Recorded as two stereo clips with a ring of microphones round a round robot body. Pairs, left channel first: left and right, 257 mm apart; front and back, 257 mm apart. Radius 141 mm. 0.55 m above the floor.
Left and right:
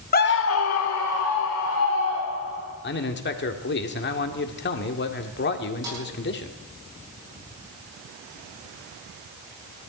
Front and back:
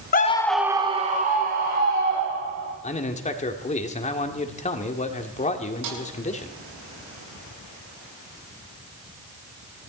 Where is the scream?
45° left, 1.0 m; by 2.7 s 135° left, 4 m.